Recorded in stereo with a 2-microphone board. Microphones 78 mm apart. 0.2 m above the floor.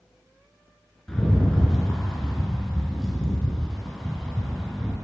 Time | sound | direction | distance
1.1 | a rattle | 5° left (ahead or behind) | 2 m